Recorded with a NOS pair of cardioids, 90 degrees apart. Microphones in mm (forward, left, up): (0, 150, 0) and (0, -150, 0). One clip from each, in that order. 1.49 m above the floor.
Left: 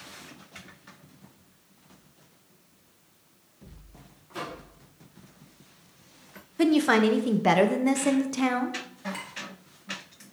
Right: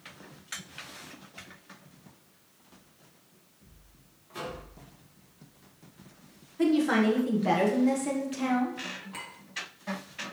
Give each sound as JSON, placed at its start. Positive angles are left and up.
{"t": 4.3, "sound": "a microwave", "azimuth_deg": 10, "distance_m": 1.2}
{"t": 6.6, "sound": "a woman speaking", "azimuth_deg": 40, "distance_m": 0.7}
{"t": 9.1, "sound": "a clink", "azimuth_deg": 10, "distance_m": 2.0}